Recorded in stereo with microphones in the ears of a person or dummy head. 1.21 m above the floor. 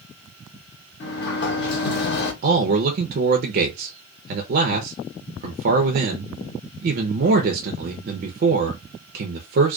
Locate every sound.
1.0 s a sliding door: 60° left (ahead or behind), 0.8 m
2.4 s a man speaking: 50° right (ahead or behind), 0.5 m